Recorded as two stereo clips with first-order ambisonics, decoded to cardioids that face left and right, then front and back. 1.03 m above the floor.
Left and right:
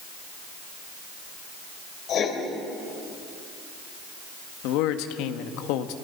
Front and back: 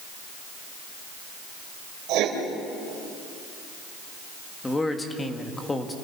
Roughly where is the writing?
Behind left.